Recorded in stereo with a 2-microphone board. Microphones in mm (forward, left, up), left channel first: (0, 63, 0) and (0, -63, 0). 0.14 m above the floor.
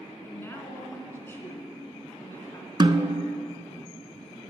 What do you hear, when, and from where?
0.2 s a woman speaking: 20° left (ahead or behind), 1.3 m
2.8 s a snare drum: 40° right (ahead or behind), 0.6 m